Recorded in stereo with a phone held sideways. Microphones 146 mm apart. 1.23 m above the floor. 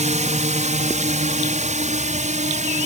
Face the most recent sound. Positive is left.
turn(degrees=-50)  # may be behind; listen again after turning